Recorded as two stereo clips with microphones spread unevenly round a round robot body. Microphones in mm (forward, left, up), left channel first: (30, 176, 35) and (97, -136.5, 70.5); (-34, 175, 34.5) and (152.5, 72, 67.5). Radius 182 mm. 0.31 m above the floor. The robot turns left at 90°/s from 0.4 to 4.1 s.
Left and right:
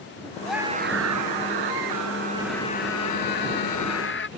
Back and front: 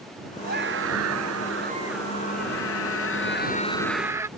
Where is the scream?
15° left; by 4.3 s 50° left.